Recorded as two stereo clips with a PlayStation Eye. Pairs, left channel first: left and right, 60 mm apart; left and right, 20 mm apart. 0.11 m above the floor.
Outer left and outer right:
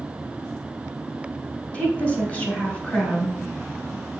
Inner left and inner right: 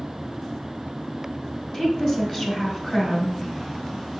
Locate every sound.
1.7 s a woman speaking: 20° left (ahead or behind), 1.2 m